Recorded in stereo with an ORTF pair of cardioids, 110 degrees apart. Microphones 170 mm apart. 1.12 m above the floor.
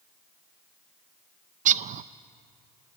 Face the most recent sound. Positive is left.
turn(degrees=-50)